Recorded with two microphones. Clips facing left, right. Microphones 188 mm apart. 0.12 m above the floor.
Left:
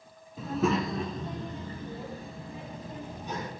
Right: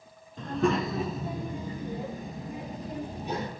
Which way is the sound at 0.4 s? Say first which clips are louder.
Right 1 dB; 10° left (ahead or behind).